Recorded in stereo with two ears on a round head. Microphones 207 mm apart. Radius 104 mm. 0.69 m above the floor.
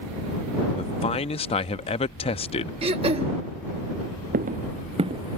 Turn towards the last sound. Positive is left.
turn(degrees=-15)  # may be behind; listen again after turning